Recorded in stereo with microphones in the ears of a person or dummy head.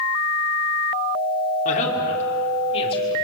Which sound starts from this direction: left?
A woman speaking, at 1.6 s.